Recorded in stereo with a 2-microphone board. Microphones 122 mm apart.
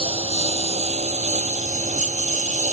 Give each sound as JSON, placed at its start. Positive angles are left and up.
{"t": 0.0, "sound": "a lawn mower", "side_deg": -55}